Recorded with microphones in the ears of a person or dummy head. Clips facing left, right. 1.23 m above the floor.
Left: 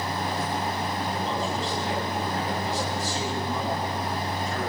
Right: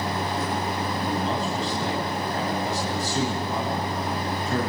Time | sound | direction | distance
1.0 | a man speaking | 65° right (ahead or behind) | 8.5 m